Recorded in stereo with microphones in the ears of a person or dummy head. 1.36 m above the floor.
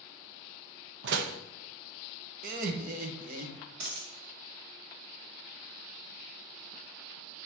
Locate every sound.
1.0 s a door slam: 65° right (ahead or behind), 0.8 m
2.4 s laughter: 50° right (ahead or behind), 1.1 m
3.8 s a dropped coin: 60° right (ahead or behind), 1.8 m